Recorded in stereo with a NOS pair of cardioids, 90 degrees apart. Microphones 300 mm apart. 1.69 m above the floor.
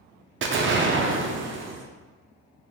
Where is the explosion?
40° right, 0.6 m.